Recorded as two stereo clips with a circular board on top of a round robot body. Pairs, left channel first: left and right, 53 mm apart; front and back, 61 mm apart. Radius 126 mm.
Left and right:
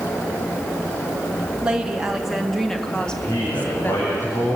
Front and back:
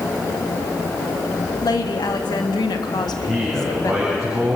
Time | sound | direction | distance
1.6 | a woman speaking | 15° right | 2.5 m
2.9 | a man speaking | 90° left | 9 m